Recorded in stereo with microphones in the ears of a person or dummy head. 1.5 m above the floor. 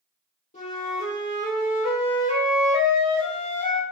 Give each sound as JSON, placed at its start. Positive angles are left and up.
{"t": 0.5, "sound": "a flute", "side_deg": 35, "distance_m": 1.1}